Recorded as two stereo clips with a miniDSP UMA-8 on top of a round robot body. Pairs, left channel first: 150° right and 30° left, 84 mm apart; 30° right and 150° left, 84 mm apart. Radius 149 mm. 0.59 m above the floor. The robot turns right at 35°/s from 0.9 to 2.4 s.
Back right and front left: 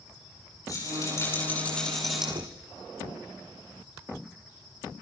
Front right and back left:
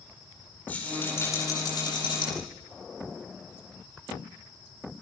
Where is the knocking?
60° left, 1.6 m.